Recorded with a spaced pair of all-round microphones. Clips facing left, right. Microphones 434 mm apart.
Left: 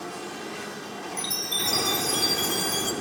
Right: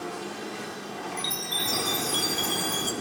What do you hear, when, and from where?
1.2 s a chime: 60° left (ahead or behind), 0.6 m